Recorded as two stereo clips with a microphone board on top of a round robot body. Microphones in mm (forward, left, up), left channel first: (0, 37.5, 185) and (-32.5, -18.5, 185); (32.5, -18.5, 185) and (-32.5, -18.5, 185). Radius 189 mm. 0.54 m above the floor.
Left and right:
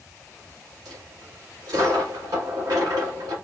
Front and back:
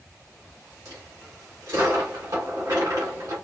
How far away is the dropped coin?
About 1.5 m.